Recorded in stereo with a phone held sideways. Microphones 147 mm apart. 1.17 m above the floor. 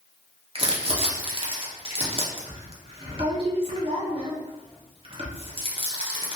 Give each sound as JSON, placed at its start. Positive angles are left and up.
{"t": 0.6, "sound": "crumpling", "side_deg": -40, "distance_m": 0.8}